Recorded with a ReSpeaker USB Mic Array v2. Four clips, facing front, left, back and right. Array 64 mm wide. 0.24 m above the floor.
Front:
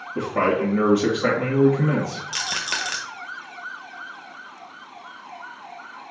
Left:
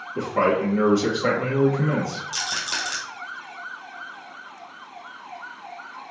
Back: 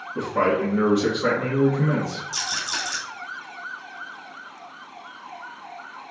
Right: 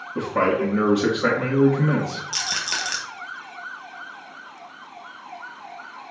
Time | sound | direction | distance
0.1 | a man speaking | 85° right | 2.5 m
2.3 | a rattle | 20° right | 1.4 m